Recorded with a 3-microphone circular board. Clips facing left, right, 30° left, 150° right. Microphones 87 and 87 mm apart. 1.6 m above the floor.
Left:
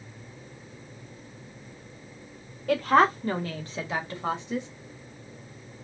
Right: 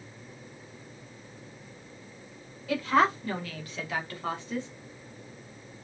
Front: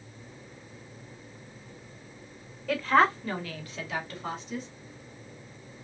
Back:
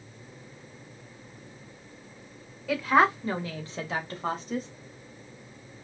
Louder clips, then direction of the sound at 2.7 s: Left 4 dB, back 1 dB; 125° left.